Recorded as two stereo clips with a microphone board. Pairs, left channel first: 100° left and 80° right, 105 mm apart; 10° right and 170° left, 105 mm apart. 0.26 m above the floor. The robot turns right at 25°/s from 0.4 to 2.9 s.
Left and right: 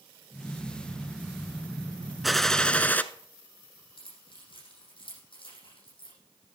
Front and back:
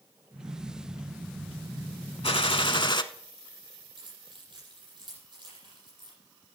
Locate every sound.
2.2 s a gunshot: 10° left, 0.6 m; by 3.0 s 25° left, 0.6 m
4.0 s keys jangling: 130° left, 7.5 m